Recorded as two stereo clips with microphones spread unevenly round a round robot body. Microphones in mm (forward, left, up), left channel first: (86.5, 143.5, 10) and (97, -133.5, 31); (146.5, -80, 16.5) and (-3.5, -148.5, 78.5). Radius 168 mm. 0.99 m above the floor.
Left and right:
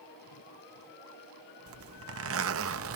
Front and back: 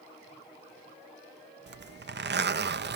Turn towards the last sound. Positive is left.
turn(degrees=-130)